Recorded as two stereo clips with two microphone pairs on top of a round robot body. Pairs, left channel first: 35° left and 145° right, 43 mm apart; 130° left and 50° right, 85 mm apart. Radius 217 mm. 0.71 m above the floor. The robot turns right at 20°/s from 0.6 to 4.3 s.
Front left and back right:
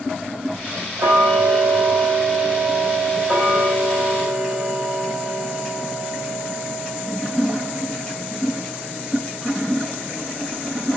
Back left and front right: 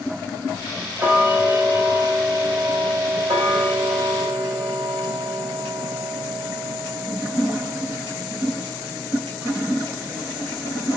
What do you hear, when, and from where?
1.0 s ticking: 120° right, 1.3 m; by 10.6 s 55° right, 1.3 m